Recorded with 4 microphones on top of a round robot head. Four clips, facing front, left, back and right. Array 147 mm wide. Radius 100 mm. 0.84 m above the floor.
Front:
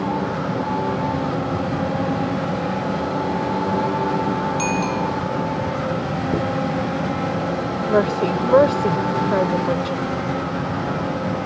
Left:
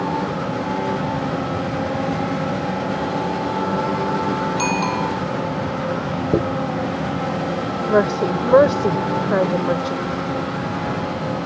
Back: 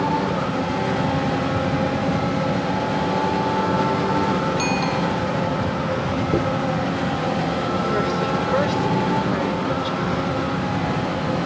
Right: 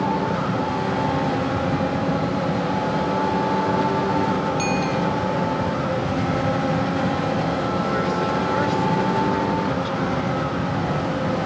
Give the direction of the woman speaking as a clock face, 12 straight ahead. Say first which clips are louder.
Left 4 dB, front 3 dB; 10 o'clock.